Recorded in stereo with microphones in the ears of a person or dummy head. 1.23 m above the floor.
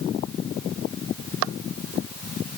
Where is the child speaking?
No child speaking in this recording.